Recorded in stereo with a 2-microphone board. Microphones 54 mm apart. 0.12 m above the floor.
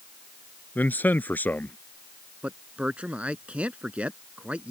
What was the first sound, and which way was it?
A man speaking, 35° left (ahead or behind).